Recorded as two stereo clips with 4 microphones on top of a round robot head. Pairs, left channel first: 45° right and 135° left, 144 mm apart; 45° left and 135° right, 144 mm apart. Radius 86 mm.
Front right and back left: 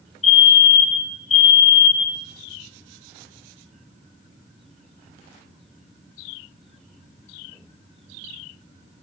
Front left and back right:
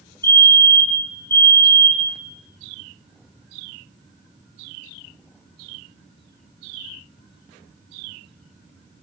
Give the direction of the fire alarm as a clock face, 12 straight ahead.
1 o'clock.